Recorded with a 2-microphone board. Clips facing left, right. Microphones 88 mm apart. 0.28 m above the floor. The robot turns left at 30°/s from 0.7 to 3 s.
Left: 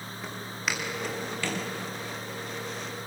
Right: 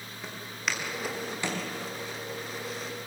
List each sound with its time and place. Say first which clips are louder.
0.2 s footsteps: left 1 dB; centre (ahead or behind), 6 m; by 1.6 s 25° right (ahead or behind), 5 m